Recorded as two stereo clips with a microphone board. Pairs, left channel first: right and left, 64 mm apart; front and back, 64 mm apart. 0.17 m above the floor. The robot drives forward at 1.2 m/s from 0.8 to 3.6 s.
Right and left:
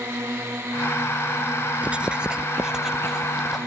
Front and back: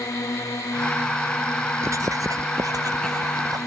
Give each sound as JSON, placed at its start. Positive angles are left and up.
{"t": 0.0, "sound": "a drone", "azimuth_deg": 35}
{"t": 1.8, "sound": "writing", "azimuth_deg": 155}